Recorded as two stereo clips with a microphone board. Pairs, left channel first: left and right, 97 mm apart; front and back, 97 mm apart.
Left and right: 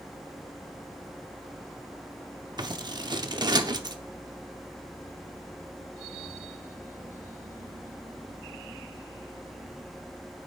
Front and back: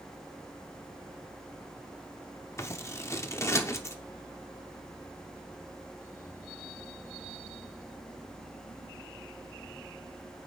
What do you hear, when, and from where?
2.6 s scissors: 55° right, 0.7 m